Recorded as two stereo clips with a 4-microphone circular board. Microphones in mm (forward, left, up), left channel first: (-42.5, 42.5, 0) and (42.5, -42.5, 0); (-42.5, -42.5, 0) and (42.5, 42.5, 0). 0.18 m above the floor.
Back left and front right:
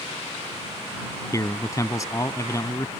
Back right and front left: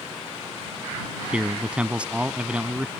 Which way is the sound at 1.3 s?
115° left.